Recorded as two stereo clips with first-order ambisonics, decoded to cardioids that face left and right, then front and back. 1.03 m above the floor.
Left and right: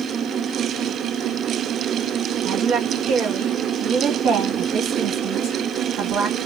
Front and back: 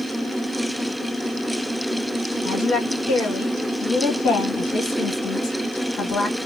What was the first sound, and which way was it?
A woman speaking, 50° right.